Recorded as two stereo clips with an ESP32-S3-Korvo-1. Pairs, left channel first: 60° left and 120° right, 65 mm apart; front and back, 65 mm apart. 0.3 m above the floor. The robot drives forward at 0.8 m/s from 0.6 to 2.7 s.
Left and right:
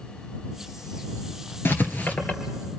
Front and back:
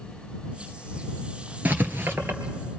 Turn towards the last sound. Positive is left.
turn(degrees=130)